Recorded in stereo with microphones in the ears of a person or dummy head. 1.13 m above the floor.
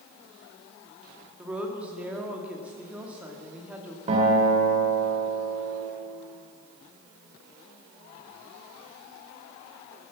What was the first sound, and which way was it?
A woman speaking, 10° right (ahead or behind).